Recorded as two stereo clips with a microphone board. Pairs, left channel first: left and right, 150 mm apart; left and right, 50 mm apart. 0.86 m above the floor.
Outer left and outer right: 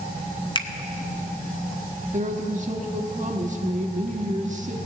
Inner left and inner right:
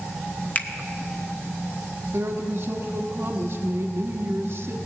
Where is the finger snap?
30° left (ahead or behind), 0.7 m.